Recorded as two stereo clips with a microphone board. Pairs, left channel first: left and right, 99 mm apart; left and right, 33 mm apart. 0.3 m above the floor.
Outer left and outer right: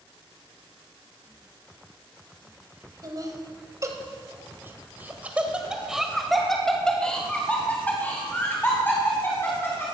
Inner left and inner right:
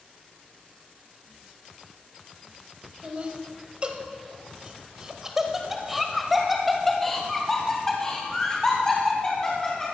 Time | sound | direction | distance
3.0 | laughter | 40° right (ahead or behind) | 2.0 m